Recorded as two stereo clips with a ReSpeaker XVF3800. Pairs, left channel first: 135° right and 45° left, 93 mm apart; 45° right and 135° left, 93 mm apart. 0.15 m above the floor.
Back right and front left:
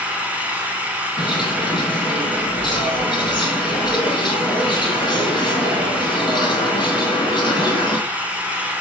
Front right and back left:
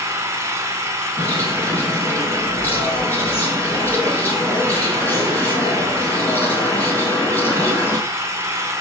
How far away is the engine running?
About 0.7 m.